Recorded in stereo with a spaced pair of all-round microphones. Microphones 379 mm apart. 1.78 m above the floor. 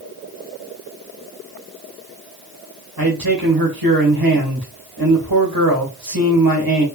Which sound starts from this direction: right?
A man speaking, at 3.0 s.